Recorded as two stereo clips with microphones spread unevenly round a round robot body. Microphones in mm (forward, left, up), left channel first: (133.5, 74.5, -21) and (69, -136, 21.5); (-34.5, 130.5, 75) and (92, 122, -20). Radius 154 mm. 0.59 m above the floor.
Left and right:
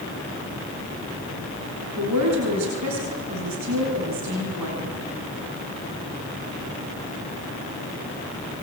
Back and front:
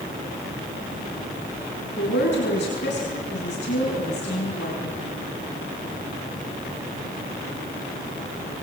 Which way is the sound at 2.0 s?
150° right.